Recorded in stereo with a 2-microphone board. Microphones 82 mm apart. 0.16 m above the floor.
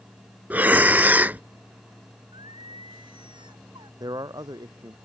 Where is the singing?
80° right.